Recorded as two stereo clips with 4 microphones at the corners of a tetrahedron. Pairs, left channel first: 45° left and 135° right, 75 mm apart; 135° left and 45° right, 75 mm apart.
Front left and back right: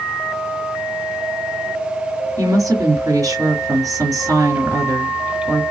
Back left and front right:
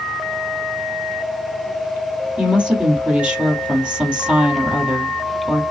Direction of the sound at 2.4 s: 115° right.